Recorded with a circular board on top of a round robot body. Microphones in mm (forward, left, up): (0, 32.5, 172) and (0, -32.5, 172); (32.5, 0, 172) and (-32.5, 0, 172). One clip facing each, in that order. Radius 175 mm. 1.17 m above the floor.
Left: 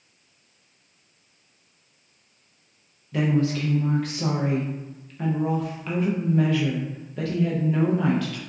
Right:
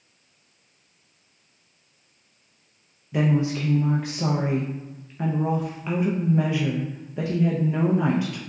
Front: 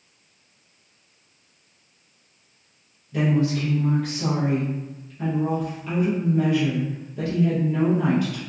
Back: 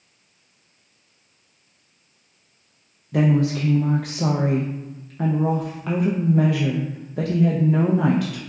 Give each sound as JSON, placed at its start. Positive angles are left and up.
{"t": 3.1, "sound": "a woman speaking", "azimuth_deg": -165, "distance_m": 0.6}